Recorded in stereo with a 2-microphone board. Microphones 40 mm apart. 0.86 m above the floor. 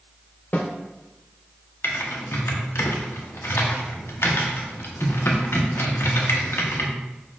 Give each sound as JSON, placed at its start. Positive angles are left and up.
{"t": 0.5, "sound": "a snare drum", "side_deg": 40, "distance_m": 0.6}
{"t": 1.8, "sound": "typing on a keyboard", "side_deg": 80, "distance_m": 0.7}